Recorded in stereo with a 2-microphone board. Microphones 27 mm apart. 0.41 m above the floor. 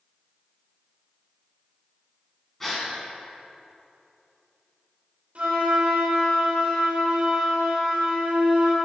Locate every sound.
2.6 s a gasp: 5° left (ahead or behind), 1.8 m
5.3 s a flute: 55° right (ahead or behind), 1.8 m